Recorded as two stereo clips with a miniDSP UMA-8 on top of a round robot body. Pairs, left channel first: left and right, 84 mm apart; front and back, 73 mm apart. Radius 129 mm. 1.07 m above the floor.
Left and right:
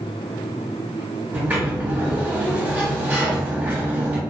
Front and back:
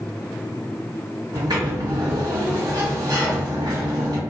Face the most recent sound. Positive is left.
turn(degrees=-160)